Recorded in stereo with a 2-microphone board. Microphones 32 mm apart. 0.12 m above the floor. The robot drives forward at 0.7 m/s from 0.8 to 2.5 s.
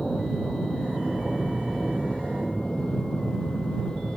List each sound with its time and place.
0.0 s an aircraft: 30° left (ahead or behind)